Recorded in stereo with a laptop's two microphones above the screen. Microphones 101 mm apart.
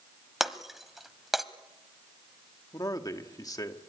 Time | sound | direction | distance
0.4 | breaking glass | centre (ahead or behind) | 1.0 m
2.7 | a man speaking | 40° left (ahead or behind) | 1.4 m